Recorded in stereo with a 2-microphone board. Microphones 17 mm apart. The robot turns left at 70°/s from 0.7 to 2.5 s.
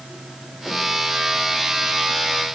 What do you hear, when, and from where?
Only background noise.